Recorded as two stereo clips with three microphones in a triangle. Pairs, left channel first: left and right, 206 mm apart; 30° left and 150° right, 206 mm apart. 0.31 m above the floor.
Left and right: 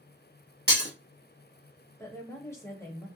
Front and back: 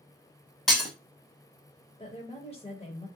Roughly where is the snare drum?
I don't hear a snare drum.